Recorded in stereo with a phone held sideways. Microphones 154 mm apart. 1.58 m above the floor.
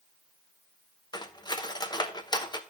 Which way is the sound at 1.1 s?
25° left (ahead or behind).